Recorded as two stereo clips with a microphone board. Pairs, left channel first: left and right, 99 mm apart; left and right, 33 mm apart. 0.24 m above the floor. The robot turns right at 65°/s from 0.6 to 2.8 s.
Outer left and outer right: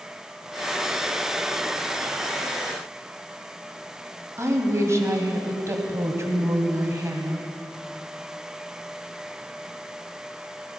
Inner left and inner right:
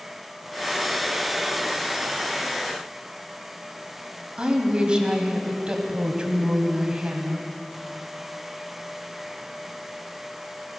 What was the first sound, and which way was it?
A woman speaking, 30° right (ahead or behind).